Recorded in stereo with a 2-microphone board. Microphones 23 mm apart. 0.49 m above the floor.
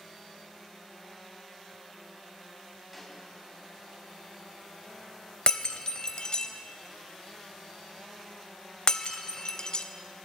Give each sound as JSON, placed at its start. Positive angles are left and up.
{"t": 2.9, "sound": "a snare drum", "side_deg": 0, "distance_m": 2.5}
{"t": 5.5, "sound": "breaking glass", "side_deg": 40, "distance_m": 0.6}